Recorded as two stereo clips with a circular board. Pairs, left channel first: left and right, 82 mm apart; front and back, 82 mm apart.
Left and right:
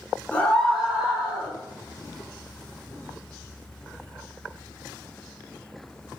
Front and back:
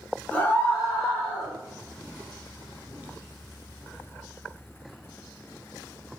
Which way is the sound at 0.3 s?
50° left.